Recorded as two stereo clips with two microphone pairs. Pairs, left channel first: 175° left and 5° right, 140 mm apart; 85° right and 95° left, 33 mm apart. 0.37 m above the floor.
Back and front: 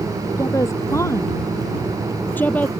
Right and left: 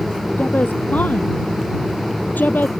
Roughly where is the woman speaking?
Behind right.